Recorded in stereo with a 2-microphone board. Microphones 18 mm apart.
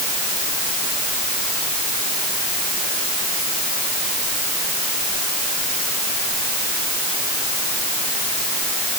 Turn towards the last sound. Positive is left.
No sound to turn to.